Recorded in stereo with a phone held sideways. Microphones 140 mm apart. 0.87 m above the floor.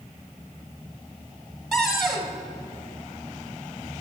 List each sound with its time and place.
1.7 s a cupboard door: centre (ahead or behind), 1.0 m